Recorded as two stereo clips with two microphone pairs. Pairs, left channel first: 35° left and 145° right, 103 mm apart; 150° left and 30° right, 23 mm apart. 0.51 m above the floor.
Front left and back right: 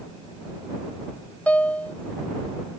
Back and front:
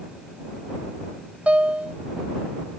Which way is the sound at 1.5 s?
40° right.